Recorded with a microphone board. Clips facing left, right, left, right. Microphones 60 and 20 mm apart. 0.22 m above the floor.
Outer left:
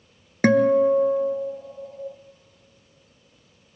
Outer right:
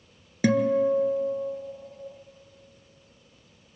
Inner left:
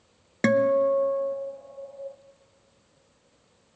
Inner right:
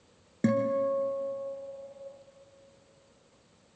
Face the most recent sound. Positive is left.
turn(degrees=55)  # may be behind; listen again after turning